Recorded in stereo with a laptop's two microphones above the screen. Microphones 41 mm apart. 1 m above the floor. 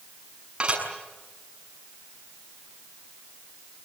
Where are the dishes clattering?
30° right (ahead or behind), 6.5 m.